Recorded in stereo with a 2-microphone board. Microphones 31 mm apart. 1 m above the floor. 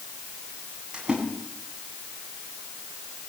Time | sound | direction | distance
0.9 | a splash | 30° right (ahead or behind) | 9 m